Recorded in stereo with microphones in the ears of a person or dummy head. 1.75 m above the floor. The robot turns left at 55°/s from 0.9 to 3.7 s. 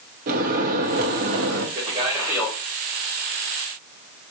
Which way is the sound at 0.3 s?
50° right.